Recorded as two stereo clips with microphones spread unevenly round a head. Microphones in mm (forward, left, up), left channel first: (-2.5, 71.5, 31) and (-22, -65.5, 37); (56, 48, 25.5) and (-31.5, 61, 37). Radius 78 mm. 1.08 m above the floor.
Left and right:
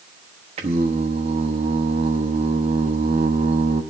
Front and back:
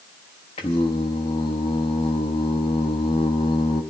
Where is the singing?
50° right, 1.0 m.